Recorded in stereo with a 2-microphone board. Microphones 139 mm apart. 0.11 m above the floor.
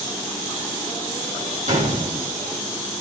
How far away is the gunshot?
About 4 m.